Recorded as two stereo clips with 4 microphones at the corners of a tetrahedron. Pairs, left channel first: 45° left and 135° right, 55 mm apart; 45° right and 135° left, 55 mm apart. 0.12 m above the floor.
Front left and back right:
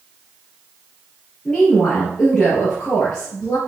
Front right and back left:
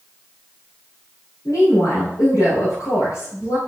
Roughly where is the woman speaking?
Ahead right.